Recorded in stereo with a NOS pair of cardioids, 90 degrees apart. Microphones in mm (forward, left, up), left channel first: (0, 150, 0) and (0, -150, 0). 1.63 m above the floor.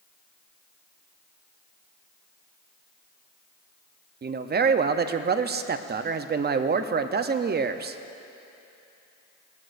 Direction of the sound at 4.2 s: 35° right.